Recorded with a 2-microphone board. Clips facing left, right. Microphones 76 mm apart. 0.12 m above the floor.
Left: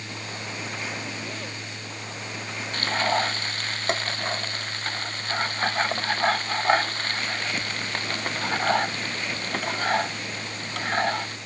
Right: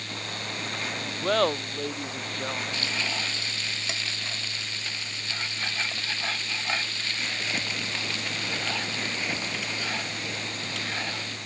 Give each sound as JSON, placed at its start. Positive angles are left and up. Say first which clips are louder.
{"t": 1.2, "sound": "laughter", "louder": "right 11 dB", "side_deg": -70}
{"t": 2.7, "sound": "frying", "louder": "left 8 dB", "side_deg": 45}